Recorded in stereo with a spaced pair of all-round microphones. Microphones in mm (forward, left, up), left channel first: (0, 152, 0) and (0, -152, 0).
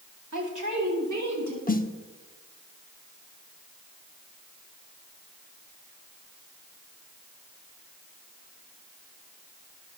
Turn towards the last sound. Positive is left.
turn(degrees=25)  # may be behind; listen again after turning